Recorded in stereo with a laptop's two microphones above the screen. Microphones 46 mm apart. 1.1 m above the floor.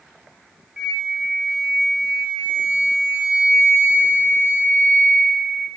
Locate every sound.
0.8 s a flute: 15° right (ahead or behind), 0.6 m